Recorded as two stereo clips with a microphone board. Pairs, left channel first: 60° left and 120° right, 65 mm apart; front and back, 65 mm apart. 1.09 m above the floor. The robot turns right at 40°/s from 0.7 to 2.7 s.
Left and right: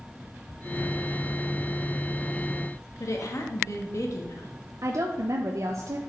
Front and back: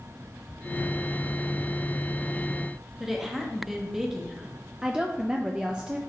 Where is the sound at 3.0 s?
95° left, 1.2 m.